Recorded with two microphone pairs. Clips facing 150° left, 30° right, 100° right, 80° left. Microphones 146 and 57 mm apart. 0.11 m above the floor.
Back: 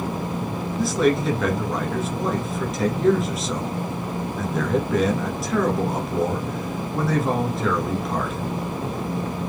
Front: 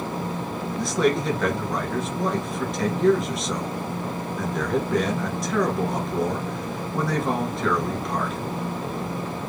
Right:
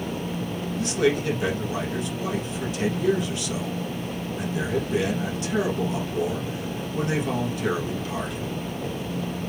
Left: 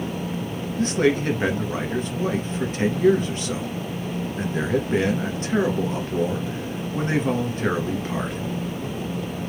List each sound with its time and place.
0.8 s a man speaking: 65° left, 1.8 m